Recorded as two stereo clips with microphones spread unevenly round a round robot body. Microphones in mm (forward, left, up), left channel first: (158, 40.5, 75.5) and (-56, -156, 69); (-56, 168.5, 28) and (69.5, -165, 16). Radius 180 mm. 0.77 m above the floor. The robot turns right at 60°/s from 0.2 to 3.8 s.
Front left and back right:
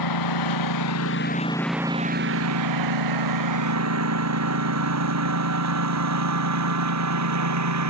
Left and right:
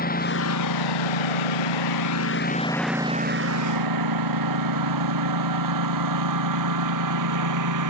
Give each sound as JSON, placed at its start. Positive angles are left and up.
{"t": 0.0, "sound": "a lawn mower", "azimuth_deg": 45}